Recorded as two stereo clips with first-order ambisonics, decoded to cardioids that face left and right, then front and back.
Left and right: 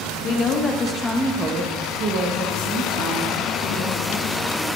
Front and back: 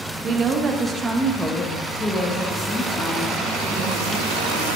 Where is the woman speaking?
130° left, 1.0 m; by 4.7 s 60° right, 2.5 m.